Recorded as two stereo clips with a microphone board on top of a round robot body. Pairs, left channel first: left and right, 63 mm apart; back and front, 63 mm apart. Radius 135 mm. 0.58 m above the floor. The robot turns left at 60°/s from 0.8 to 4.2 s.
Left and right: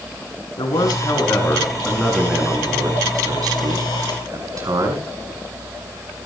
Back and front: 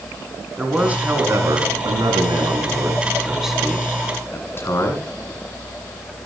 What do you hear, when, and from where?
0.6 s a man speaking: 75° left, 6 m; by 5.1 s 130° right, 6 m